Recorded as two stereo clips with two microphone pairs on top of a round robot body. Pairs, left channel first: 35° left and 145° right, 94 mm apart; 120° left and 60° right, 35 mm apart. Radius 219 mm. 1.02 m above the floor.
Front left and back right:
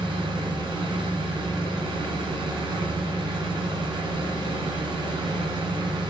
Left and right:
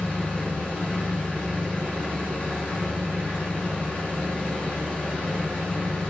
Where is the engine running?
175° left, 4 m.